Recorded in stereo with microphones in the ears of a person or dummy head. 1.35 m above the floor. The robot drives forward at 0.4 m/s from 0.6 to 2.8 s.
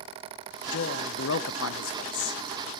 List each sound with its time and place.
0.7 s a man speaking: 55° left (ahead or behind), 1.1 m; by 2.4 s 80° left, 0.9 m